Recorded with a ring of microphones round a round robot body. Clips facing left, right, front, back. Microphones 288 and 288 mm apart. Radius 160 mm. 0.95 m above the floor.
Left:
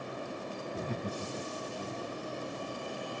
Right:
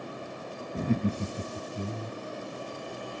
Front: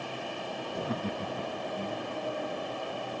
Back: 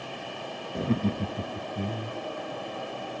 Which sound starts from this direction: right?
Laughter, at 0.8 s.